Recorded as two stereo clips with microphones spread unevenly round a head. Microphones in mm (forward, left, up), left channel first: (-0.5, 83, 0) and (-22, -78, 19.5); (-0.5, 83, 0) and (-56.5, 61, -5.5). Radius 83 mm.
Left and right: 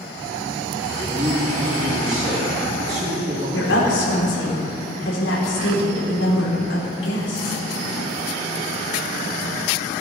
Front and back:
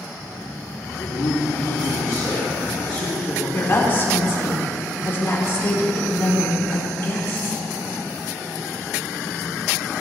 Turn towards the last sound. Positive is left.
turn(degrees=75)